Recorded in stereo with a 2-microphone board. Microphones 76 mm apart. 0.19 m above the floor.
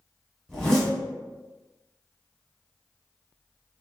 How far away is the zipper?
About 1.1 m.